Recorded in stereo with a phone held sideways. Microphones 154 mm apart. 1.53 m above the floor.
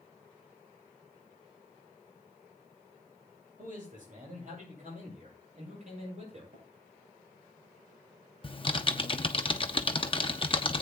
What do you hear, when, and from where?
3.6 s a man speaking: 60° right (ahead or behind), 8 m; by 6.4 s 45° right (ahead or behind), 7.5 m
6.5 s tapping: 55° right (ahead or behind), 5 m
8.4 s typing on a keyboard: 35° left (ahead or behind), 0.7 m